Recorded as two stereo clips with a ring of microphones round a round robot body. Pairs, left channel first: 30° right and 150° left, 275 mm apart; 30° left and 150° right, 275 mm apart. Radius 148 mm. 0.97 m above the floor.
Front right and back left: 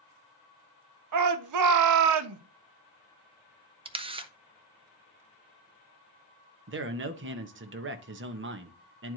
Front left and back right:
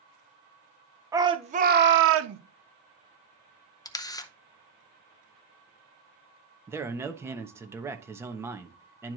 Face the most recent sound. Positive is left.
turn(degrees=135)